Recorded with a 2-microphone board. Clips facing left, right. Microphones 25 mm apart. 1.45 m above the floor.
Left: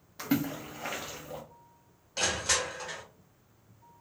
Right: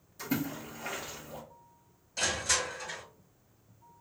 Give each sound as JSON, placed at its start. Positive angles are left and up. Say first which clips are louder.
{"t": 0.2, "sound": "a splash", "louder": "left 4 dB", "side_deg": 50, "distance_m": 1.2}
{"t": 2.2, "sound": "crushing", "louder": "left 1 dB", "side_deg": 40, "distance_m": 1.3}